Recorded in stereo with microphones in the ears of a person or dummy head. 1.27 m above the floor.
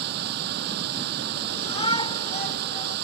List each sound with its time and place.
0.0 s running water: 65° right (ahead or behind)
1.5 s a shout: 35° left (ahead or behind)